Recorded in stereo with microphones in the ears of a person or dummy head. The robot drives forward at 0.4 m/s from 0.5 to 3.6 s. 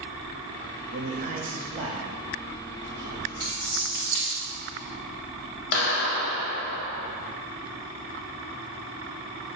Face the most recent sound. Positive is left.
turn(degrees=55)  # may be behind; listen again after turning